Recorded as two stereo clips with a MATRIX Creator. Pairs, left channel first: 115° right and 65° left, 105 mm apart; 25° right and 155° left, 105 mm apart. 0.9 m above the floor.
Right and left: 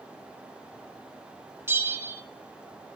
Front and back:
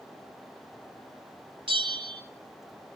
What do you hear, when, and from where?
1.7 s a bell: 130° left, 1.9 m